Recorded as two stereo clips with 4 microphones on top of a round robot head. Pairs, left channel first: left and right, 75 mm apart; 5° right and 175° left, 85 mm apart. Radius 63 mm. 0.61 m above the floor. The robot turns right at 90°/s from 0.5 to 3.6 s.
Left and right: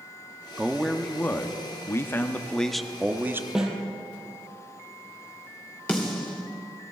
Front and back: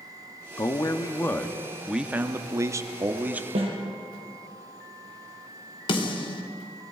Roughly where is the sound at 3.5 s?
Behind.